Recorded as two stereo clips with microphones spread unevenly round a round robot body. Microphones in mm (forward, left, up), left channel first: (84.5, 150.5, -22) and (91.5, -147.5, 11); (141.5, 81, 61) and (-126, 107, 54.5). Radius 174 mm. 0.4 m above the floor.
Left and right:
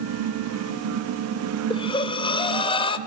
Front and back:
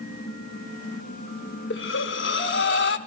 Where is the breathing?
30° left, 0.8 m.